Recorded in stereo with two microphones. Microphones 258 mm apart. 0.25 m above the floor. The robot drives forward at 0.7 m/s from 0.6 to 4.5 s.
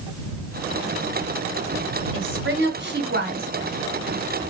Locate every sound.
2.1 s a woman speaking: 50° right (ahead or behind), 2 m; by 3.5 s 40° right (ahead or behind), 2.5 m